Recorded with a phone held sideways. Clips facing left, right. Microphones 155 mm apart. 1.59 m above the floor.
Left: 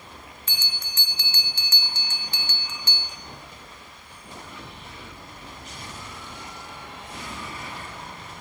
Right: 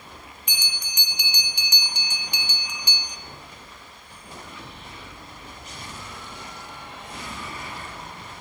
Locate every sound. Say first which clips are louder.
0.5 s a bell: right 1 dB; 15° right (ahead or behind), 0.6 m